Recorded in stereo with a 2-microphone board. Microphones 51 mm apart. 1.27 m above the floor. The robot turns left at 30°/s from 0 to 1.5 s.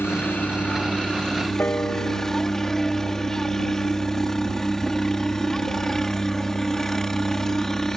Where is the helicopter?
55° left; by 8.0 s 10° left.